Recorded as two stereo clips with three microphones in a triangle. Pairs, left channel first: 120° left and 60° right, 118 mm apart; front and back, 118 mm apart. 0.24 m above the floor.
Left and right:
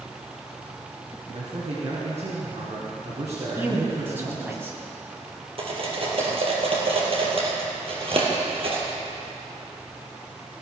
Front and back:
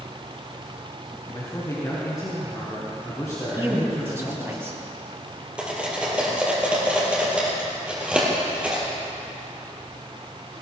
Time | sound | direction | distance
1.3 | a man speaking | 60° right | 2.5 m
3.6 | a man speaking | 120° right | 2.0 m
5.6 | cutlery clinking | 100° right | 3 m